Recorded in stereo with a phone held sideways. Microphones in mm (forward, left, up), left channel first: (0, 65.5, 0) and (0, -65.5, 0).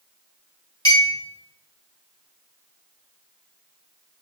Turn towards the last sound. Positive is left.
turn(degrees=30)  # may be behind; listen again after turning